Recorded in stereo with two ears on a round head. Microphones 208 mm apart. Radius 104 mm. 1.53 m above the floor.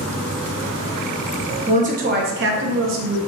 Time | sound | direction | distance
1.7 | a woman speaking | 30° right (ahead or behind) | 0.9 m